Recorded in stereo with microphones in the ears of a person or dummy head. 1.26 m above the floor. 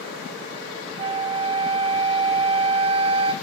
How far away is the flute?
About 0.6 m.